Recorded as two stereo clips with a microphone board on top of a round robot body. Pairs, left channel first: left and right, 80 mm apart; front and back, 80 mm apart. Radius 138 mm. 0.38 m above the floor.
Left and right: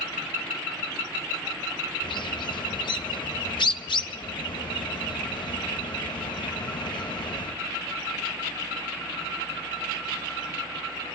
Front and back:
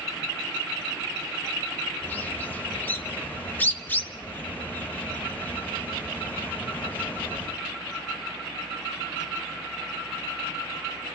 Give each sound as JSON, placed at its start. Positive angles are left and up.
{"t": 2.0, "sound": "a bird", "azimuth_deg": 65, "distance_m": 0.9}